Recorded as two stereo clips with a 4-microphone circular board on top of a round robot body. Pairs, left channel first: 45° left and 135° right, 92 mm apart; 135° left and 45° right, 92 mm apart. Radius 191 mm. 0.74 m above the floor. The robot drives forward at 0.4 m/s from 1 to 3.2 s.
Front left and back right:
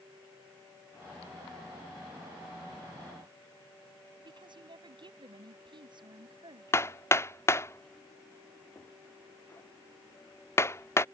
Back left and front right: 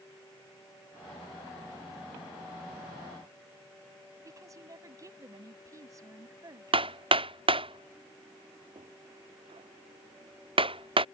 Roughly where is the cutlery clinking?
I don't hear cutlery clinking.